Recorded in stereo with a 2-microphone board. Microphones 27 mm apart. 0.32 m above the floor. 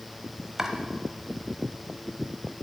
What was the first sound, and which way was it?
Chopping, 20° right (ahead or behind).